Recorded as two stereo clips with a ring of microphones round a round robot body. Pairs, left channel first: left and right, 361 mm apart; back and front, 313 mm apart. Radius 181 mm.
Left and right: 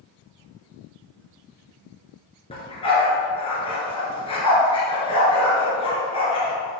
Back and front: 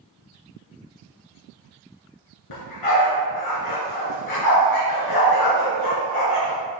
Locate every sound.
2.5 s a dog barking: 165° left, 1.6 m